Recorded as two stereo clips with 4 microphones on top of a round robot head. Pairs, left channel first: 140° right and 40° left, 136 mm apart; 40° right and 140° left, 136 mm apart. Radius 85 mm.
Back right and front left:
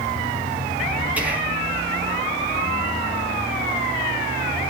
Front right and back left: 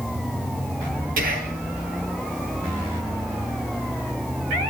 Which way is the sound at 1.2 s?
120° left.